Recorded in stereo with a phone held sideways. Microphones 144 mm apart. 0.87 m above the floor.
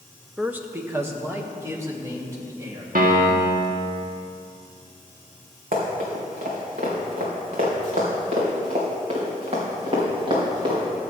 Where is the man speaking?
10° right (ahead or behind), 0.7 m; by 2.9 s 25° right (ahead or behind), 3.5 m.